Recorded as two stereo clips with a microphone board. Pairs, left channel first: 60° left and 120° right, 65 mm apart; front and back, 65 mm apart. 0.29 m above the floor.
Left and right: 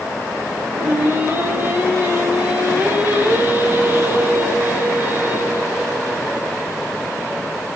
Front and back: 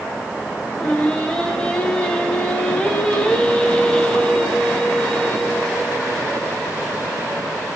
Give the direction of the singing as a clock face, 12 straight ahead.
2 o'clock.